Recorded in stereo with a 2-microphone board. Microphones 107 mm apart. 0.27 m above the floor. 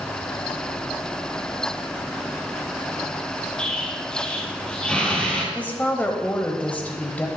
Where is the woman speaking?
15° left (ahead or behind), 1.0 m.